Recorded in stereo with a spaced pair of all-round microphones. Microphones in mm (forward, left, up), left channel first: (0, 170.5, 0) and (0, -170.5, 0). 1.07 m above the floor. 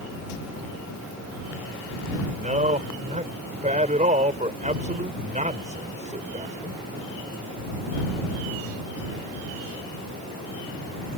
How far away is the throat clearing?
I don't hear throat clearing.